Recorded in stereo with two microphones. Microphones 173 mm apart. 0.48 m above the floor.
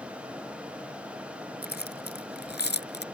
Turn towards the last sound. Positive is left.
turn(degrees=85)